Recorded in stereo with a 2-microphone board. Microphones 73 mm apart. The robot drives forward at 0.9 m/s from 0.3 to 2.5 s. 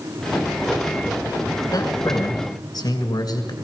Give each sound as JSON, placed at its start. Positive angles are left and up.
{"t": 1.7, "sound": "a man speaking", "side_deg": 55, "distance_m": 2.5}